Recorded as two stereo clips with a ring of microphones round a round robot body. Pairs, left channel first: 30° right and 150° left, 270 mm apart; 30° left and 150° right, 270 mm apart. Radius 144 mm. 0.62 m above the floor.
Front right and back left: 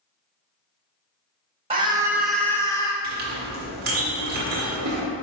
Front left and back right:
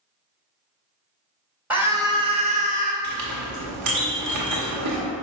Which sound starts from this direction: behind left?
A scream, at 1.7 s.